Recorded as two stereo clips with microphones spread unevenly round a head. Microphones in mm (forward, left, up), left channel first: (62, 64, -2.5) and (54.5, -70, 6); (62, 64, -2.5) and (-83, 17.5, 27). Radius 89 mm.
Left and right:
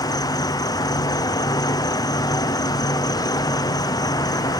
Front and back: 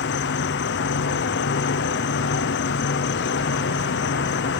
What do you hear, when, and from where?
0.0 s an insect: 25° left